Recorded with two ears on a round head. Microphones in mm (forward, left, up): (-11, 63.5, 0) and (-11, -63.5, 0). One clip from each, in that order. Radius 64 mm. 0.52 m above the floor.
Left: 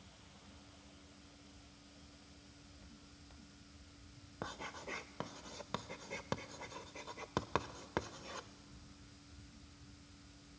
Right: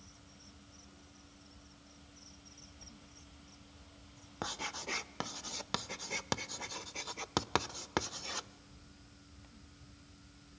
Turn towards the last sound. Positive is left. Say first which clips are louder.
# right 6 dB
turn(degrees=-70)  # may be behind; listen again after turning